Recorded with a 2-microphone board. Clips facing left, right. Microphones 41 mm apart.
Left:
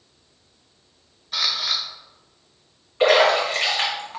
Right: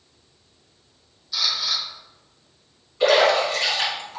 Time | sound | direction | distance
1.3 | a camera shutter | 45° left (ahead or behind) | 0.8 m
3.0 | a splash | 45° left (ahead or behind) | 1.5 m